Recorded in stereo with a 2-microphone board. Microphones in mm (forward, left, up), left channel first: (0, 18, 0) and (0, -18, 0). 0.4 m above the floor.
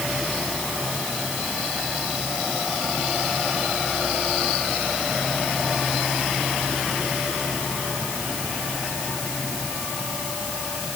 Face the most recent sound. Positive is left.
No sound to turn to.